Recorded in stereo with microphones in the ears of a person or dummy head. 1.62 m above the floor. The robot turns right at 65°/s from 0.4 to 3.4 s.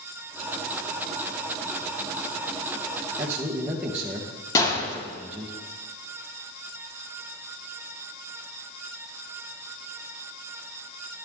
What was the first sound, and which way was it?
A man speaking, 20° right (ahead or behind).